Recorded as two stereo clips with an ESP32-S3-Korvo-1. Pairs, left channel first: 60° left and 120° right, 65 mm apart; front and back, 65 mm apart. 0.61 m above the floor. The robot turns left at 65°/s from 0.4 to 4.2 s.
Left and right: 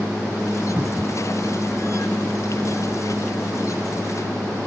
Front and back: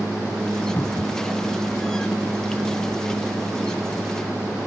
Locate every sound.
0.8 s a cupboard door: 55° right; by 1.2 s 90° right